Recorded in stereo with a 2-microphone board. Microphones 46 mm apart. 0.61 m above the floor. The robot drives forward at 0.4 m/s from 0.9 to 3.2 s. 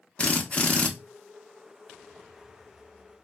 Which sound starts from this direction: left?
A drill, at 0.2 s.